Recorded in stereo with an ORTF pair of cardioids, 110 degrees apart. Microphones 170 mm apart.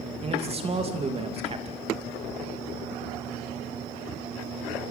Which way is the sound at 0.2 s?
35° right.